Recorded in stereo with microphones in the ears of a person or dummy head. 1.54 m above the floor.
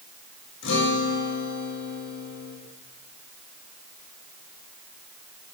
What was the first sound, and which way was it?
A guitar, 70° left (ahead or behind).